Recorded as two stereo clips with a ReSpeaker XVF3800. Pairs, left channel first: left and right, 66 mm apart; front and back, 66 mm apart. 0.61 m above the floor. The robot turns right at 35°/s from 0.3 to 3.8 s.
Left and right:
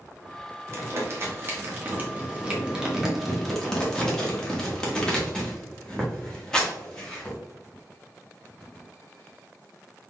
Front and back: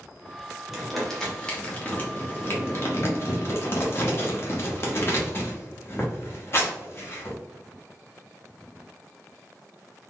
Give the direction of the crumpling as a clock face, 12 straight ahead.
3 o'clock.